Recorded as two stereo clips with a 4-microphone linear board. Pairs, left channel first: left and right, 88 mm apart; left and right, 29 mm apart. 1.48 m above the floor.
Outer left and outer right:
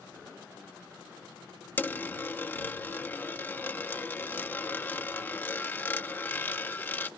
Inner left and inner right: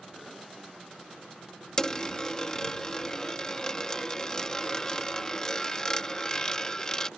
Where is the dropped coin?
20° left (ahead or behind).